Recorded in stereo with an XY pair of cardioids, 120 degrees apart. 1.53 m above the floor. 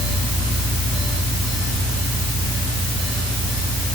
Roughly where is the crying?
I don't hear crying.